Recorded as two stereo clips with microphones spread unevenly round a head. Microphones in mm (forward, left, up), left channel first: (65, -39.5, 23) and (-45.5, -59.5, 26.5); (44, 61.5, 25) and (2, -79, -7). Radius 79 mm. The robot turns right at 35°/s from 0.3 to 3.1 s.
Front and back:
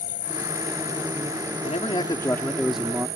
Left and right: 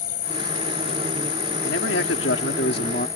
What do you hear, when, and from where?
0.0 s an insect: 45° left; by 3.2 s 145° left
1.6 s a man speaking: 65° left; by 3.1 s 115° left